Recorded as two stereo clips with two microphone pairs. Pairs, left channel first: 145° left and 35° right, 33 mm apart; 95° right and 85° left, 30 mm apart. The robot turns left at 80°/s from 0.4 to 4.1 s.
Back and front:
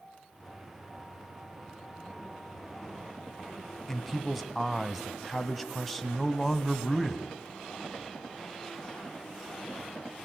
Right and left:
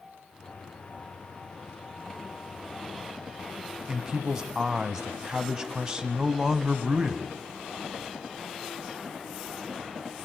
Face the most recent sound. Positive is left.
turn(degrees=55)